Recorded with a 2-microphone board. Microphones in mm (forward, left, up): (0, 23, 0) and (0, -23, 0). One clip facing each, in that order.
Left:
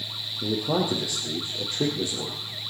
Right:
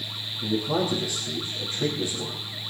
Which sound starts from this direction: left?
A man speaking, at 0.4 s.